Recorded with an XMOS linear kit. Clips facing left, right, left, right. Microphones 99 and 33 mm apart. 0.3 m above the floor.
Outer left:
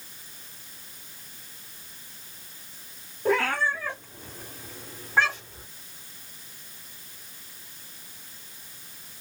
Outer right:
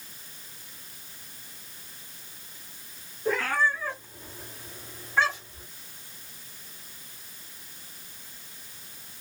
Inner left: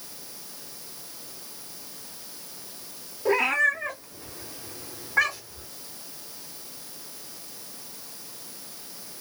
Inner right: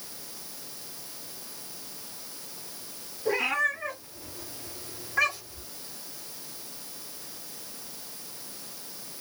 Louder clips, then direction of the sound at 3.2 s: Outer left 2 dB, inner left 4 dB; 65° left (ahead or behind).